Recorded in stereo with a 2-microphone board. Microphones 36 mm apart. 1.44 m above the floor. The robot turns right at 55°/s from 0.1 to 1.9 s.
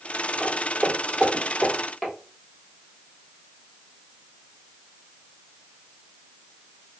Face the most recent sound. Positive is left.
turn(degrees=0)  # may be behind; listen again after turning